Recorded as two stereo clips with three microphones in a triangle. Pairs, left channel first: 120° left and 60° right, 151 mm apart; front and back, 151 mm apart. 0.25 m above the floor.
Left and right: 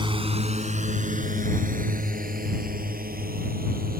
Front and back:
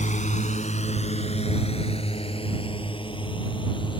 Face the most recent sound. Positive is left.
turn(degrees=-55)